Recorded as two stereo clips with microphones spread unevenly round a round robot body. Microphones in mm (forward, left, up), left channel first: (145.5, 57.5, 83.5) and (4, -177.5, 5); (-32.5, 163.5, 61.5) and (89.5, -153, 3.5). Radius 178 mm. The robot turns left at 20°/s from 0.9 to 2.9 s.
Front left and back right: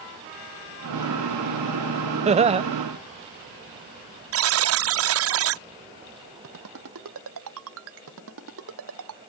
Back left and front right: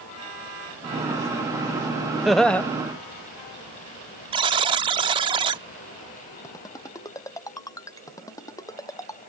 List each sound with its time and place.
2.2 s laughter: 150° right; by 2.6 s 155° right
4.3 s a buzzer: 140° right
6.4 s a ringtone: 170° right